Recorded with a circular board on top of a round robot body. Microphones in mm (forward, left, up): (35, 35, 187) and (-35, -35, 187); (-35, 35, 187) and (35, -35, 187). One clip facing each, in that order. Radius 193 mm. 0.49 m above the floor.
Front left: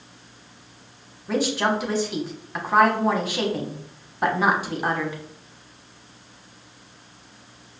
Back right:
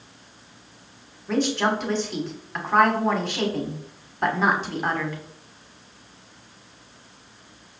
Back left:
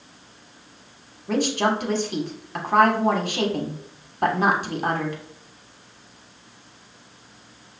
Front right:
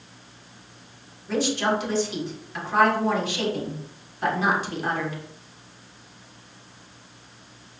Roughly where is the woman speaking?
Behind left.